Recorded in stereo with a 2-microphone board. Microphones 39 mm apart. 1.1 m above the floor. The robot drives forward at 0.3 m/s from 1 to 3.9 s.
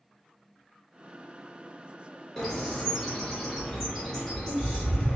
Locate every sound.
2.4 s a bird: 10° left (ahead or behind), 1.1 m